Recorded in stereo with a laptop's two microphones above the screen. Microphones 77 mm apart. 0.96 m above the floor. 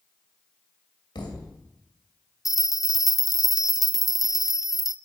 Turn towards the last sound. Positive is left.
turn(degrees=-5)  # may be behind; listen again after turning